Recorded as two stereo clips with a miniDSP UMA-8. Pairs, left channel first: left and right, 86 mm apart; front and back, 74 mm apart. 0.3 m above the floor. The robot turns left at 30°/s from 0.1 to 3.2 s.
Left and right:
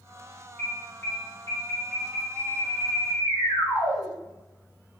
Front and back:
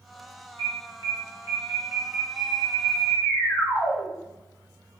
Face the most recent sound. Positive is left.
turn(degrees=90)